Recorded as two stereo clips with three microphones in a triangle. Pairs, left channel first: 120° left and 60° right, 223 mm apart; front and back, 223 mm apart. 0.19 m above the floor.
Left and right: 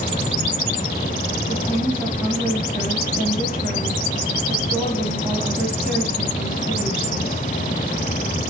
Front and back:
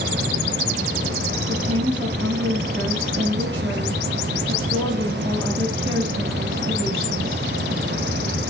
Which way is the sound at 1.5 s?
145° right.